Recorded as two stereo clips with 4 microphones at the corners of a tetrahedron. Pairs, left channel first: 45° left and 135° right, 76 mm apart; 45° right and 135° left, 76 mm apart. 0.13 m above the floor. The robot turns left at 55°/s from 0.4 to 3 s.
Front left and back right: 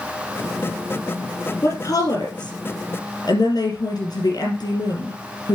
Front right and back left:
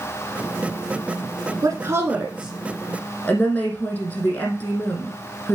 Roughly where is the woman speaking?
Left.